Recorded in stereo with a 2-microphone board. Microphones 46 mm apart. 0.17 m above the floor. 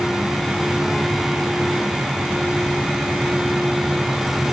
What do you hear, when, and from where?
Only background noise.